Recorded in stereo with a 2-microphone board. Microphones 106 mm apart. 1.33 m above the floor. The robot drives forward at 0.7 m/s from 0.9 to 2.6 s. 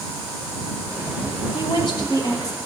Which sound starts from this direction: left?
A woman speaking, at 1.5 s.